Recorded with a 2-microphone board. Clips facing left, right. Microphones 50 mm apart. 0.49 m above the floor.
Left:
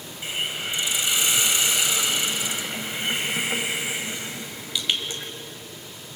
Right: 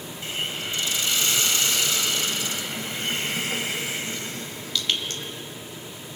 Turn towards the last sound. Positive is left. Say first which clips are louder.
# left 2 dB
turn(degrees=20)  # may be behind; listen again after turning